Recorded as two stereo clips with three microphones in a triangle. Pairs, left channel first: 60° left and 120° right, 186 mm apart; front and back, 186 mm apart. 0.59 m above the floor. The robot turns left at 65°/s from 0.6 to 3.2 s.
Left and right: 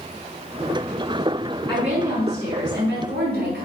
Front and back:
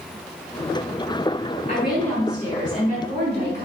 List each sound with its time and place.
1.7 s a woman speaking: 30° right, 4 m; by 3.6 s 125° right, 4 m